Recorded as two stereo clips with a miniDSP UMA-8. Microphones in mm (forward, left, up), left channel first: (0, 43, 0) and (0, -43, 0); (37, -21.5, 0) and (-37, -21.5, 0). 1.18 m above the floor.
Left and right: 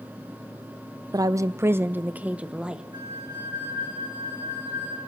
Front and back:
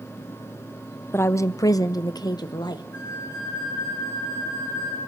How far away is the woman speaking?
About 0.6 m.